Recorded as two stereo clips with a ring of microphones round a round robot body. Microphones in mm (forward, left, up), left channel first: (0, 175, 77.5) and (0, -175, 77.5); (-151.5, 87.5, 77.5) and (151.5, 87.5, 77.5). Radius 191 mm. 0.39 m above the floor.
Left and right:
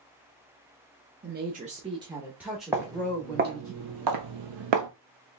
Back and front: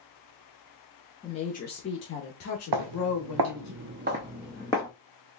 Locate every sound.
1.2 s a woman speaking: 120° right, 0.9 m; by 3.7 s 165° left, 1.5 m
2.7 s footsteps: 5° right, 1.0 m; by 4.9 s 105° right, 0.8 m